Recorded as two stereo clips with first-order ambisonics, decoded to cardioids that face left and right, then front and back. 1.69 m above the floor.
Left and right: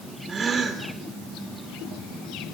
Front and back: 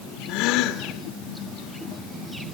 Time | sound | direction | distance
0.3 | a gasp | 20° right | 3 m